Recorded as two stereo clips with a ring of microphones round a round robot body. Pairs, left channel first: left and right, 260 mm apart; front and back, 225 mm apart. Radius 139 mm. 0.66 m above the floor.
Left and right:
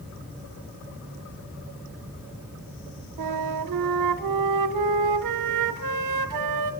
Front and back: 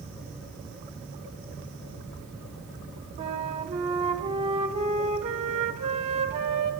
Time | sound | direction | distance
3.2 | a flute | 110° right | 0.8 m